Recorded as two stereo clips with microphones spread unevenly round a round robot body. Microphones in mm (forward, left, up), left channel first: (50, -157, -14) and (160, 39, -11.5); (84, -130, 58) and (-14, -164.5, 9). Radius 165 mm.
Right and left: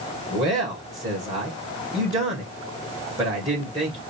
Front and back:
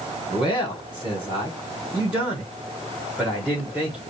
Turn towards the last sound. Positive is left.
turn(degrees=135)